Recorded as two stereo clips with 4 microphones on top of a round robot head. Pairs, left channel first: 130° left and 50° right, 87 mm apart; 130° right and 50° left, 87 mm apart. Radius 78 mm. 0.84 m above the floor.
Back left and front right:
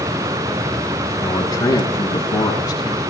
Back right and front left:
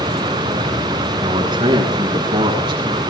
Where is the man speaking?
85° left, 6.5 m; by 3.0 s 90° left, 8 m.